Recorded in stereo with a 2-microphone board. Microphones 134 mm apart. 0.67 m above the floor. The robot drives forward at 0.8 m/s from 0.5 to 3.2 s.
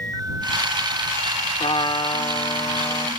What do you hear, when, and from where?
1.6 s a trumpet: 45° left (ahead or behind); by 3.1 s 25° left (ahead or behind)